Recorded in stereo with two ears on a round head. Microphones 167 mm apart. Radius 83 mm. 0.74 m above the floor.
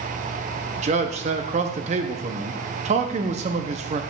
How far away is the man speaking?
About 0.7 m.